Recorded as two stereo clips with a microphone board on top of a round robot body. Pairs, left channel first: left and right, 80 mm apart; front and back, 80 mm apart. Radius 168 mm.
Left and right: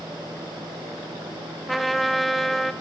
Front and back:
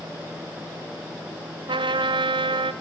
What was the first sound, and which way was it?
A trumpet, straight behind.